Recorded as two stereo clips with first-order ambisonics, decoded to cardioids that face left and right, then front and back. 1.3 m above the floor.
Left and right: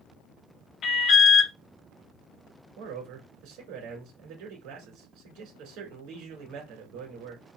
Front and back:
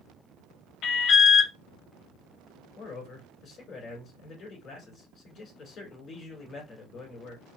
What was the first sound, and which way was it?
An alarm, 45° left.